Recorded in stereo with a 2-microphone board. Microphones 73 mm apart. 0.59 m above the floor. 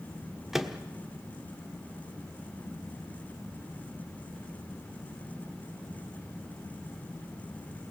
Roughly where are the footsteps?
No footsteps in this recording.